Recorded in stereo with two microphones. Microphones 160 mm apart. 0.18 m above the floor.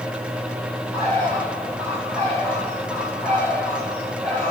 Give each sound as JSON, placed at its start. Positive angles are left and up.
{"t": 0.9, "sound": "a bird", "side_deg": 10, "distance_m": 3.5}